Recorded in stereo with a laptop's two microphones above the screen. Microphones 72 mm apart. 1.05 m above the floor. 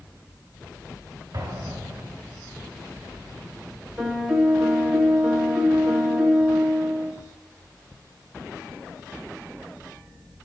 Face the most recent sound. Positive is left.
turn(degrees=-5)  # may be behind; listen again after turning